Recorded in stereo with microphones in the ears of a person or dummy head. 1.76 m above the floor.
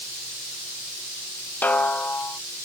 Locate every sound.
1.6 s a snare drum: 10° left (ahead or behind)